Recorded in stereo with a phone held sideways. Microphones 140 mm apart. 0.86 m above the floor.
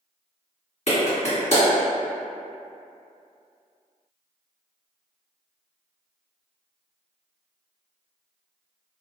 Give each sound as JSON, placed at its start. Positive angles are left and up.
{"t": 0.9, "sound": "a clap", "side_deg": 50, "distance_m": 1.7}